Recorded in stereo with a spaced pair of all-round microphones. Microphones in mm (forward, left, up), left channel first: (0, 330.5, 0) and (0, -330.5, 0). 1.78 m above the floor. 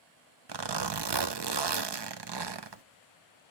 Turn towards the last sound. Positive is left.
turn(degrees=-40)  # may be behind; listen again after turning